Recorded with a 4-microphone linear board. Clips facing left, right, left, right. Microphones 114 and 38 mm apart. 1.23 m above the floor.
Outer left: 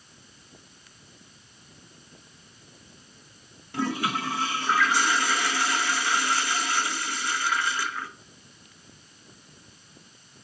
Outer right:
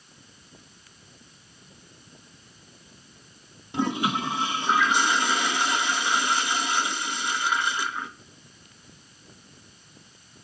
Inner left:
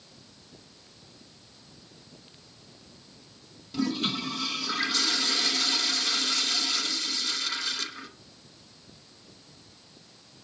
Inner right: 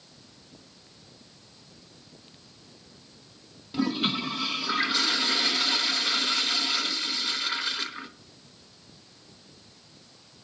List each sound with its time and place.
3.7 s a toilet flushing: 20° right (ahead or behind), 0.7 m